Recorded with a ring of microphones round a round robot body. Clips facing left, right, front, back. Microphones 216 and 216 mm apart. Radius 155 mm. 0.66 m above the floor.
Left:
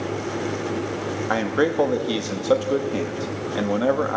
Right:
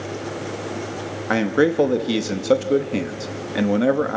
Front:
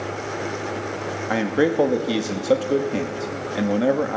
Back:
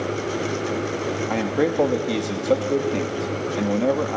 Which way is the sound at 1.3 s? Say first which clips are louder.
Right 4 dB, front 3 dB; 75° right.